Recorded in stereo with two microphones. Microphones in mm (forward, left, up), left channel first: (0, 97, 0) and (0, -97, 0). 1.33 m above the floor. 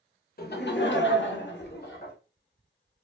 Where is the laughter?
50° left (ahead or behind), 0.7 m.